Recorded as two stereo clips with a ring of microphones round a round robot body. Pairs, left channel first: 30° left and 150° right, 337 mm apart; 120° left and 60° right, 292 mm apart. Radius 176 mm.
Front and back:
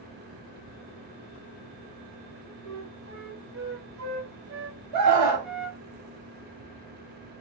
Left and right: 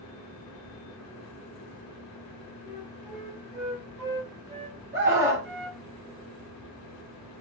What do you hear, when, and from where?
2.6 s a flute: 115° right, 1.5 m
4.9 s a scream: 115° right, 1.7 m